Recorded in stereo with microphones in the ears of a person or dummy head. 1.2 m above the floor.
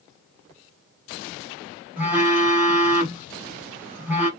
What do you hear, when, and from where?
2.0 s a phone buzzing: 15° right (ahead or behind), 1.2 m